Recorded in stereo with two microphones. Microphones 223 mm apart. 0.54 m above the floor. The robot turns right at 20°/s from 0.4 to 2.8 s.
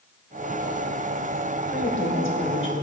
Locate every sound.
1.7 s a woman speaking: 55° left (ahead or behind), 2.5 m; by 2.8 s 65° left (ahead or behind), 2.5 m